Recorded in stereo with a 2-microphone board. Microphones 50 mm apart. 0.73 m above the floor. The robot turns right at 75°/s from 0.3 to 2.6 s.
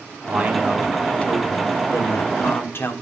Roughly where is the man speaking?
Ahead right.